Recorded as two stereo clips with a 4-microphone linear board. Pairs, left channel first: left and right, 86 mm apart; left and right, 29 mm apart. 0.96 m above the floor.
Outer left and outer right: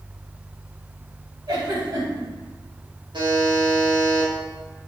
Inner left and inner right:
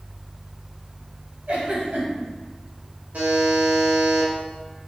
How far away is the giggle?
About 1.8 m.